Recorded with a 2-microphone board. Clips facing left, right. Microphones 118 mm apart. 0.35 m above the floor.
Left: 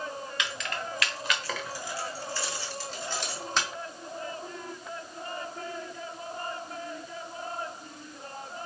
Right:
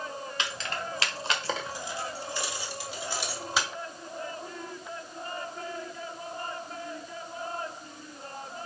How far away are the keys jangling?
About 1.0 m.